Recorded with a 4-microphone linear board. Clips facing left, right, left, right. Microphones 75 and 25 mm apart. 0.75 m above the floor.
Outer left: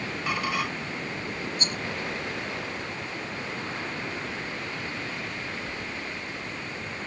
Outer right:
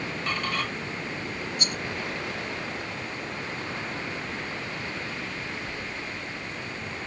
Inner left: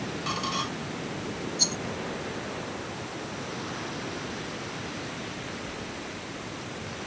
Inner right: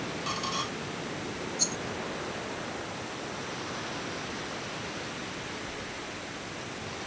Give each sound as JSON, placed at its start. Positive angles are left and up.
{"t": 0.3, "sound": "a squeak", "side_deg": 10}
{"t": 1.6, "sound": "a rattle", "side_deg": 35}